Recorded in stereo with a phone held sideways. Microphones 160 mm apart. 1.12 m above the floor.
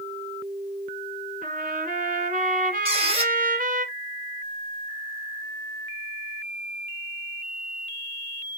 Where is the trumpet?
60° right (ahead or behind), 1.9 m.